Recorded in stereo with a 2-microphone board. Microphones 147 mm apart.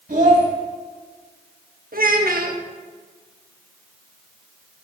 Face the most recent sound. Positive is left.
turn(degrees=-80)